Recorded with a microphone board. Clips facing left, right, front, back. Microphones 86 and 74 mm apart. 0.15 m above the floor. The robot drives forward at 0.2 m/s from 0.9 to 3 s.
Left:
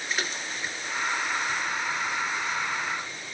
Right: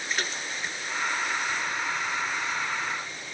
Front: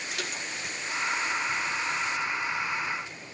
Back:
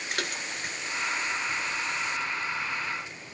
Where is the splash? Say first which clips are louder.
Even, back 3 dB; 175° left, 1.3 m.